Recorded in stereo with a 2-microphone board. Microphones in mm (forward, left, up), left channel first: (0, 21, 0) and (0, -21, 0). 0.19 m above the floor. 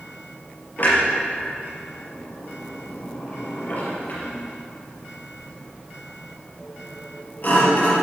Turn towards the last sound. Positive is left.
turn(degrees=45)  # may be behind; listen again after turning